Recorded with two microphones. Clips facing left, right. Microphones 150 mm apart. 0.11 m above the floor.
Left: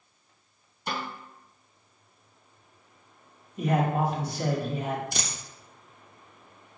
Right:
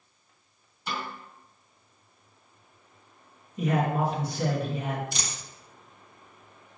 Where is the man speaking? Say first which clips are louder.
Even; 5° left (ahead or behind), 1.2 m.